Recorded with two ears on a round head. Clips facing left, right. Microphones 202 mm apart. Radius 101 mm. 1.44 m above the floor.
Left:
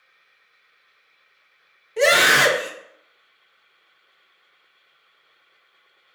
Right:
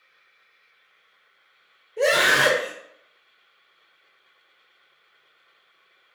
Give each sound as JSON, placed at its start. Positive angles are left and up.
{"t": 2.0, "sound": "a scream", "side_deg": 85, "distance_m": 0.9}